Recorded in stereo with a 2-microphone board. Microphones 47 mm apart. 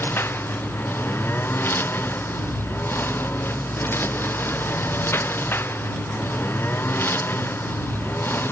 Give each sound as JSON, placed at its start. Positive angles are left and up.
{"t": 0.0, "sound": "a lawn mower", "side_deg": 50}